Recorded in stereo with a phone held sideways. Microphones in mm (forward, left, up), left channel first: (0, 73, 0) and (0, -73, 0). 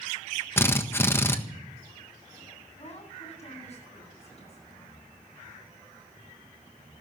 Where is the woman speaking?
45° left (ahead or behind), 9.5 m.